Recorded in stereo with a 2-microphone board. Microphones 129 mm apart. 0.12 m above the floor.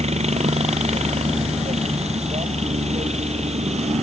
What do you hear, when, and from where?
0.0 s a helicopter: 60° right (ahead or behind)